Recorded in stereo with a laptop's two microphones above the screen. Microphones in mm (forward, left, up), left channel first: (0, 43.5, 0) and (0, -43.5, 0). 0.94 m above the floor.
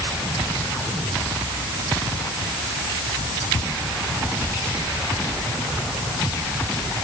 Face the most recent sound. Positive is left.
No sound to turn to.